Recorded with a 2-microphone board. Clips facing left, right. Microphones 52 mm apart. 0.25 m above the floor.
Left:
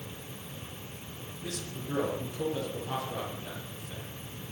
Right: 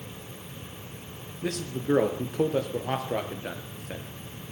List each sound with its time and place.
1.4 s a man speaking: 65° right (ahead or behind), 4.5 m